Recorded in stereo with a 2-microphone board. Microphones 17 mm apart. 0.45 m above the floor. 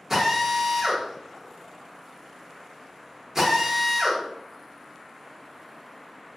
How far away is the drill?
About 1.0 m.